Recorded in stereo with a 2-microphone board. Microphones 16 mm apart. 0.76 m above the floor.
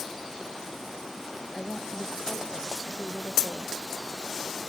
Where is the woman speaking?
60° left (ahead or behind).